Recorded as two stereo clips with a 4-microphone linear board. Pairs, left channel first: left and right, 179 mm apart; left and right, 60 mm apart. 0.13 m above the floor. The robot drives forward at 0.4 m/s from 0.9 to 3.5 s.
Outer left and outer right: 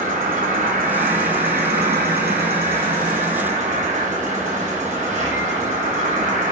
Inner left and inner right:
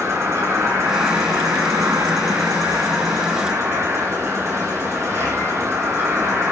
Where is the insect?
50° right (ahead or behind), 0.8 m.